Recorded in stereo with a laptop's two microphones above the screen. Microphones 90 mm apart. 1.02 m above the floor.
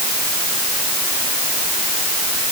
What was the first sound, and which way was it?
Only background noise.